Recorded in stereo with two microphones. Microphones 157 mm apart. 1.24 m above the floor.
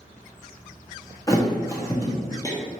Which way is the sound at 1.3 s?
20° left (ahead or behind).